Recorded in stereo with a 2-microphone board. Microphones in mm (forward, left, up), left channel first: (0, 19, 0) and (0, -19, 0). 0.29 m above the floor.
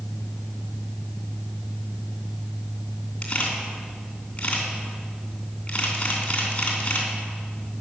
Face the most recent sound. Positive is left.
turn(degrees=30)  # may be behind; listen again after turning